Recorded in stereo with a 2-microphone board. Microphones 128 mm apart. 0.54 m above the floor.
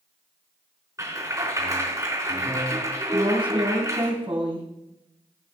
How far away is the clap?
About 4 m.